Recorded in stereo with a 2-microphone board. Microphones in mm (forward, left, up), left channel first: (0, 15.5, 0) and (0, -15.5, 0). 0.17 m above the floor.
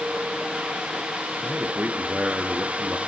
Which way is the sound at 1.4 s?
65° right (ahead or behind).